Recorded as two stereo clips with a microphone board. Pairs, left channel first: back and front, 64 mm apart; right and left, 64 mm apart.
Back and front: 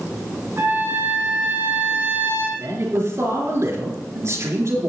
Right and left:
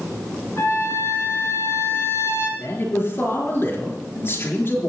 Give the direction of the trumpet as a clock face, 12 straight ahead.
2 o'clock.